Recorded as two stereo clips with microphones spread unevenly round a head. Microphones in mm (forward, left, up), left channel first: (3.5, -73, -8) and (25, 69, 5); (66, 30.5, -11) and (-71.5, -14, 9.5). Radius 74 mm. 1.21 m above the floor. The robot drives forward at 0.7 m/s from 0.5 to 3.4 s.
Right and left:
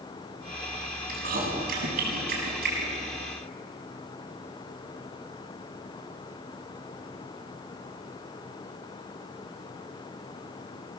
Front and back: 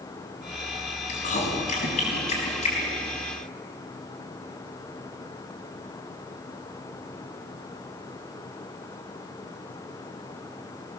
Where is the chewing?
55° left, 6.5 m; by 2.9 s 65° left, 6 m.